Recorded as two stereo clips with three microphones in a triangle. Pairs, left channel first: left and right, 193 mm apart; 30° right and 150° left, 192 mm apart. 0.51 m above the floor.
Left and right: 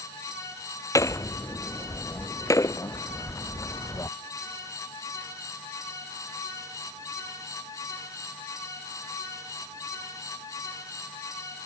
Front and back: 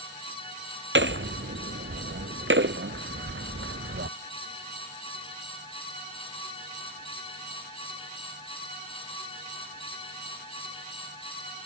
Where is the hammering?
165° left.